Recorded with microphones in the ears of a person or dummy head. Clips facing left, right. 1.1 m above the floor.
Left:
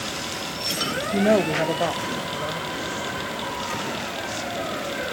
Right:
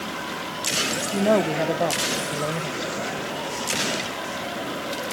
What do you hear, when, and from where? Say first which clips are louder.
1.1 s a woman speaking: left 1 dB; 15° left (ahead or behind), 1.1 m; by 3.3 s 50° right (ahead or behind), 1.8 m